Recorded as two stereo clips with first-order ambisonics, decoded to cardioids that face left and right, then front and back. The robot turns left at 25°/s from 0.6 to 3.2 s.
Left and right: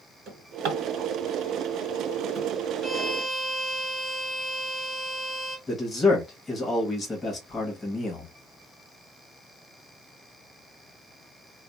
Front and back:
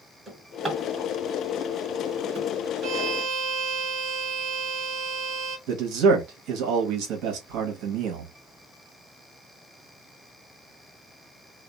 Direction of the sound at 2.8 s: 175° right.